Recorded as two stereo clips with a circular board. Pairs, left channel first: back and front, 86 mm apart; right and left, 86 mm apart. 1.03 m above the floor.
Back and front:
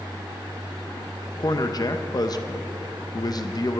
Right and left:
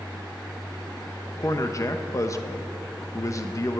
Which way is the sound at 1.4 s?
140° right.